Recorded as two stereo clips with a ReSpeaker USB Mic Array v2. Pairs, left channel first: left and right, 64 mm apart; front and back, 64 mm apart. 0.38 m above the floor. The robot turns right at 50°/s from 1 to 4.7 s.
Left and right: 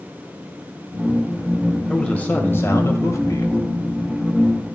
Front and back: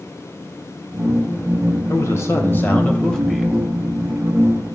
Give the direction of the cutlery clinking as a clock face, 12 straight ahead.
I don't hear cutlery clinking.